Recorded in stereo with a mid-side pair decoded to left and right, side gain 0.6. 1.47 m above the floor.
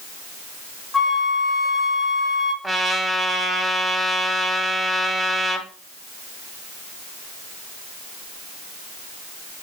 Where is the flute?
Straight ahead, 1.2 m.